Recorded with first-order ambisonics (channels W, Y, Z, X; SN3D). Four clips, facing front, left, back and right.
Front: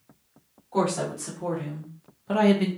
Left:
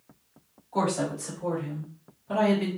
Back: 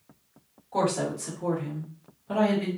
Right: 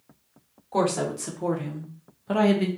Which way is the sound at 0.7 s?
90° right.